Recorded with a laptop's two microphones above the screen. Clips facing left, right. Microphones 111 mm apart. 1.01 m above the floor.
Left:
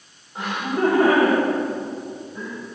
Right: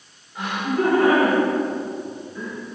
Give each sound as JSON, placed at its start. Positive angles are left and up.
{"t": 0.3, "sound": "laughter", "side_deg": 30, "distance_m": 4.5}